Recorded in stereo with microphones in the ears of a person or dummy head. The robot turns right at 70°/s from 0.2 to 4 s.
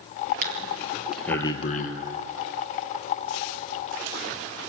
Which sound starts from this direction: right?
Breathing, at 0.4 s.